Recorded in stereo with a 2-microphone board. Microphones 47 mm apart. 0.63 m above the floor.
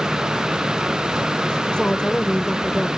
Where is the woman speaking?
20° left (ahead or behind).